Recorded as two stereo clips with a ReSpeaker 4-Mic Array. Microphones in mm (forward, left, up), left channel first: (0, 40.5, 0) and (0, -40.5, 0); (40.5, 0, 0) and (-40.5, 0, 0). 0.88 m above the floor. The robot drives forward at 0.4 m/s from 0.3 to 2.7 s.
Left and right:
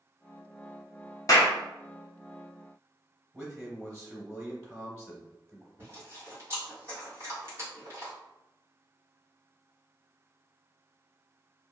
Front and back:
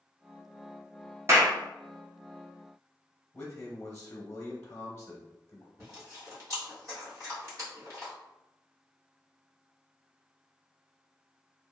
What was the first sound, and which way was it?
A clap, 130° left.